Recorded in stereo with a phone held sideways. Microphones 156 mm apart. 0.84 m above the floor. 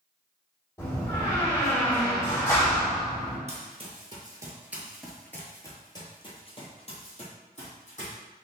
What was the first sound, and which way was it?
A door slam, 25° left (ahead or behind).